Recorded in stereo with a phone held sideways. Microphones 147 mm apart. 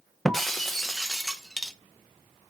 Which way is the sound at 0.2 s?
Centre (ahead or behind).